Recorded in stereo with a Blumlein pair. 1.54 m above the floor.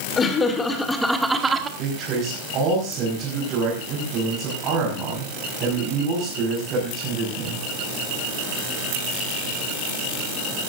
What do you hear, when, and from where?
0.2 s laughter: 25° left, 3 m; by 1.7 s 20° right, 1.9 m
1.8 s a man speaking: 35° right, 5.5 m